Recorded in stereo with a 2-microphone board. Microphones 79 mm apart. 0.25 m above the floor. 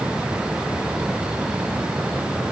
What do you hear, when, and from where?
Only background noise.